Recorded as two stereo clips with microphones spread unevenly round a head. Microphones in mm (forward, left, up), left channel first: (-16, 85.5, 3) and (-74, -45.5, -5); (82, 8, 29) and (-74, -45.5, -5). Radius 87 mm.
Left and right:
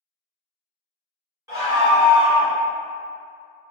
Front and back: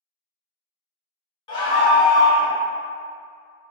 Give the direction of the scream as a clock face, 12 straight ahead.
1 o'clock.